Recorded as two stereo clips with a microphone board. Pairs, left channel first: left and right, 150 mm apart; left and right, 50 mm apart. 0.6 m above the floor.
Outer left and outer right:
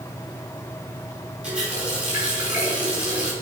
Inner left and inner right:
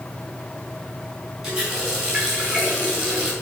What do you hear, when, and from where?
1.4 s a running tap: 10° right (ahead or behind), 4.5 m